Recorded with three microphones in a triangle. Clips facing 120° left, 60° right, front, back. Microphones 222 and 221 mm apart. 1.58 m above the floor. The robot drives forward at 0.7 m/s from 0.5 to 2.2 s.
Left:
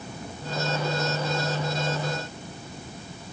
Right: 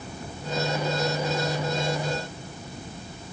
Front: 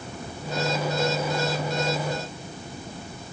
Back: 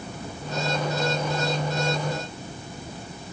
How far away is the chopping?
No chopping in this recording.